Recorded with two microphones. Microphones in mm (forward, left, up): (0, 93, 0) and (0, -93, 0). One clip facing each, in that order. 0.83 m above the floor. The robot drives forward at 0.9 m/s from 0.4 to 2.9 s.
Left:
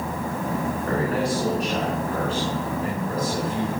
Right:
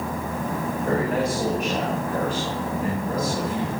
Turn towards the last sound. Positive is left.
turn(degrees=-15)  # may be behind; listen again after turning